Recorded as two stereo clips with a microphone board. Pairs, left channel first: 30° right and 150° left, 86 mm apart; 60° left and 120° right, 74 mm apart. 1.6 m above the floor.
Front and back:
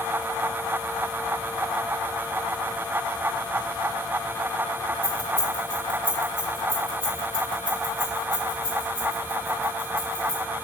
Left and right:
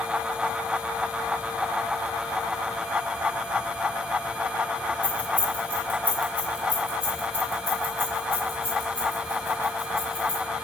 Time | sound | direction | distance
5.0 | keys jangling | 130° left | 1.9 m